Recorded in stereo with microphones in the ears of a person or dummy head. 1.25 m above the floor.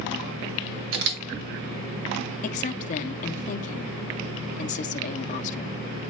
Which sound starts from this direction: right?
A camera shutter, at 0.9 s.